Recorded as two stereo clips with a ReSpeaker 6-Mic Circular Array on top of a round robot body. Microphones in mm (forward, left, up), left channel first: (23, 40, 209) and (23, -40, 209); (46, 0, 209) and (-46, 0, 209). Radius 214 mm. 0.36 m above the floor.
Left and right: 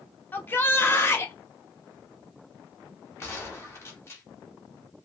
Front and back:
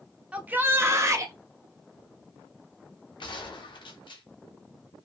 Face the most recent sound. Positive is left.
turn(degrees=30)